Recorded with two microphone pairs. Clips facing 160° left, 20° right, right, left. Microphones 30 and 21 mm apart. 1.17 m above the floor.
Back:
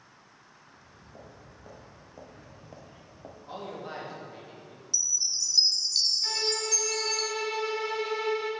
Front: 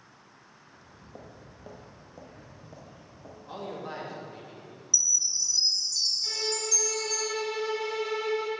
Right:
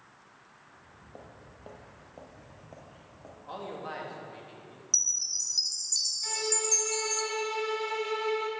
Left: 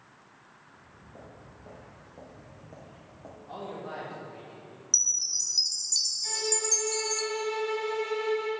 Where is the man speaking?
120° right, 2.5 m.